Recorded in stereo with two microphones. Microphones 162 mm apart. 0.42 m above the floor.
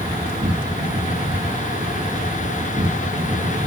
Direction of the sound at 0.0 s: 60° right (ahead or behind).